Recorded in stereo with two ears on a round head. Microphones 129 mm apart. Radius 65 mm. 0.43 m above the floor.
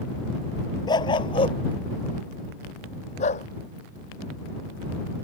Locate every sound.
0.9 s a dog barking: 30° left (ahead or behind); by 3.5 s 55° left (ahead or behind)